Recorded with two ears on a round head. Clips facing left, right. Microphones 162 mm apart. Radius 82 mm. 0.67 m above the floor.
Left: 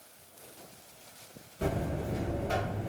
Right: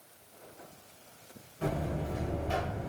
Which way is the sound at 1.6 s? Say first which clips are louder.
Left 1 dB; 45° left (ahead or behind).